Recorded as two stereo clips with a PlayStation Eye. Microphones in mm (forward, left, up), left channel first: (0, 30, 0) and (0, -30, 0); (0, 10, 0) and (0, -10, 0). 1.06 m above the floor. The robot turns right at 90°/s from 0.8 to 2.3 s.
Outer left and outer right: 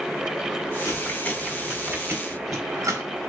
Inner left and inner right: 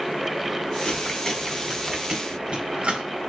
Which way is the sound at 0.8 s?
65° left (ahead or behind).